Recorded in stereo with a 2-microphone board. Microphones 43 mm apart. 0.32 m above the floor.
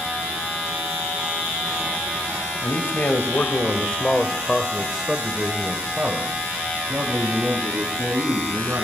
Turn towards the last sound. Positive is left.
turn(degrees=-65)  # may be behind; listen again after turning